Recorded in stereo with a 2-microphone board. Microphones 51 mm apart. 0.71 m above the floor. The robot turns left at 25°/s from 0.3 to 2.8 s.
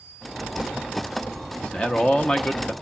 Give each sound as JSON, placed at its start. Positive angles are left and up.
{"t": 1.6, "sound": "a man speaking", "side_deg": 20, "distance_m": 0.9}